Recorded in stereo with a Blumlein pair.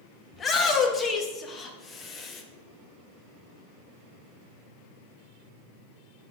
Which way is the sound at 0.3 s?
20° left.